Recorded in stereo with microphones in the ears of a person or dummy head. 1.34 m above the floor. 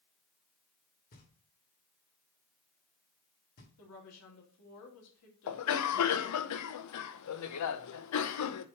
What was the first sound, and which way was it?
Knocking, 45° left (ahead or behind).